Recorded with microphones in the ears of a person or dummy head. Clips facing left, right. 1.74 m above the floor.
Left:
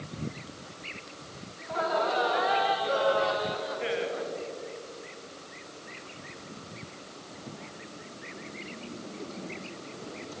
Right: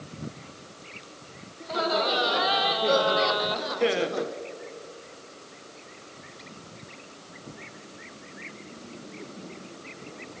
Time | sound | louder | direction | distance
1.6 | laughter | right 2 dB | 45° right (ahead or behind) | 4 m